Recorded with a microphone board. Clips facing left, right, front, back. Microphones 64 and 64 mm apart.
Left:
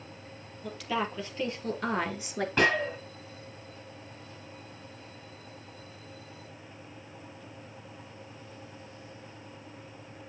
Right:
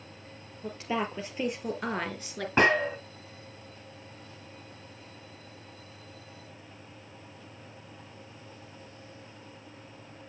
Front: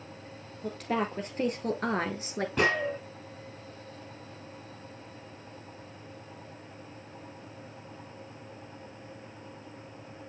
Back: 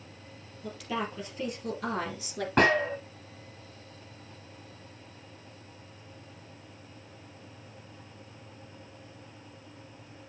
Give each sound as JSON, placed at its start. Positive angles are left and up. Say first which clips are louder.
{"t": 0.6, "sound": "a woman speaking", "louder": "even, front 3 dB", "azimuth_deg": -35, "distance_m": 3.0}
{"t": 2.6, "sound": "a gunshot", "louder": "right 3 dB, back 4 dB", "azimuth_deg": -150, "distance_m": 3.0}